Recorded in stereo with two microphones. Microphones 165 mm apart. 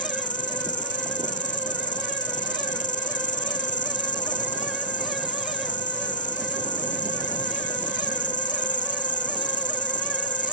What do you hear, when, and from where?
0.0 s an insect: 50° left (ahead or behind)